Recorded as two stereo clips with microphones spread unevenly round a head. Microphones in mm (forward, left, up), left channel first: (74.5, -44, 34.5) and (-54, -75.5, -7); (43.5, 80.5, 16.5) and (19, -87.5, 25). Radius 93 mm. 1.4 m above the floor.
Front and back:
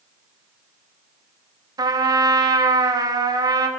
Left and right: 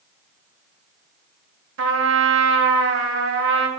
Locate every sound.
1.8 s a trumpet: 110° right, 1.7 m